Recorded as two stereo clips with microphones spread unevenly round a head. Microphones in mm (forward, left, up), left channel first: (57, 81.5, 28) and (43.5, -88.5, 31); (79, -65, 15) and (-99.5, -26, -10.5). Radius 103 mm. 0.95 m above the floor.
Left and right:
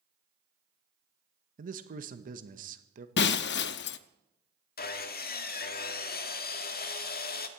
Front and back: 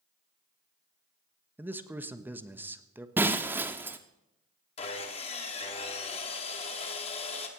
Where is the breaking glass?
85° left, 0.6 m.